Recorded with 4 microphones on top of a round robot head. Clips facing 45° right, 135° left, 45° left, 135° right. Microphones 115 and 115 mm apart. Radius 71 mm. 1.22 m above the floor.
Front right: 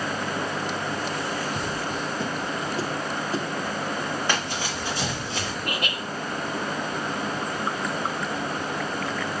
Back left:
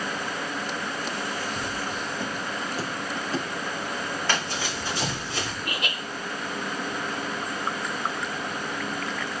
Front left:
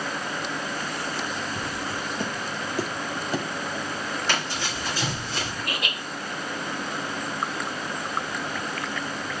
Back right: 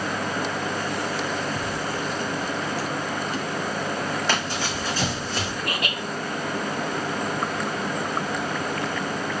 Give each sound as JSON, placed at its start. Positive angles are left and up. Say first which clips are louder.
{"t": 1.6, "sound": "footsteps", "louder": "front right 2 dB, back right 3 dB", "azimuth_deg": -60, "distance_m": 1.3}
{"t": 4.3, "sound": "running footsteps", "louder": "front right 1 dB, back right 3 dB", "azimuth_deg": -120, "distance_m": 4.5}
{"t": 5.6, "sound": "laughter", "louder": "front right 2 dB, back right 3 dB", "azimuth_deg": -95, "distance_m": 3.0}